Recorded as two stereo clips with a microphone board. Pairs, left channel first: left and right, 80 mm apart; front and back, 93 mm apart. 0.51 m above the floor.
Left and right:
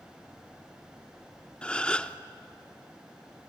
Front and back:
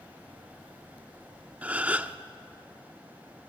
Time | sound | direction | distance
1.6 | a gasp | 140° left | 0.7 m